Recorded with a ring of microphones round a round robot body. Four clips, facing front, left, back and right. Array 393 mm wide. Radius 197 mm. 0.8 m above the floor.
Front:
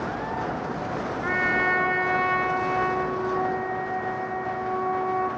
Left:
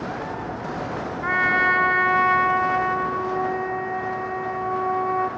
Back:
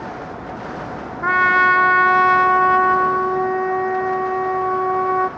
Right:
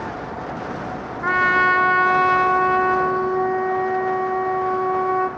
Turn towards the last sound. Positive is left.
turn(degrees=-160)